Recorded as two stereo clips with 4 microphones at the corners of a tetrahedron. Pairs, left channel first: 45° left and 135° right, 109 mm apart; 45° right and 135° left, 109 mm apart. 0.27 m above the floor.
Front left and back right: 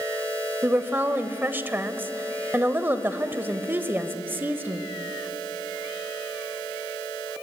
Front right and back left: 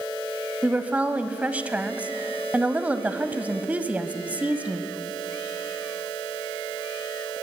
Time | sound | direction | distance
0.6 | a woman speaking | 170° right | 1.0 m